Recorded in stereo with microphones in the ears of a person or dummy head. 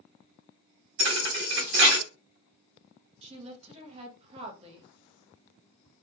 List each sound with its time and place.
1.0 s a thud: 50° right (ahead or behind), 0.9 m
3.2 s a woman speaking: 25° right (ahead or behind), 0.6 m